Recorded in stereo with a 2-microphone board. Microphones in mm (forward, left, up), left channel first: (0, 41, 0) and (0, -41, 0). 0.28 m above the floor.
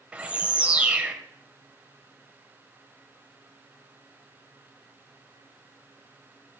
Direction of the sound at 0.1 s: 20° right (ahead or behind).